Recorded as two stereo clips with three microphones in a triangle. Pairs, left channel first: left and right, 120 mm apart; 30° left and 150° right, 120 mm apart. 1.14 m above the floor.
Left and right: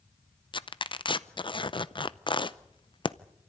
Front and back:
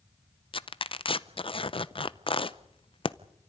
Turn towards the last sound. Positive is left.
turn(degrees=55)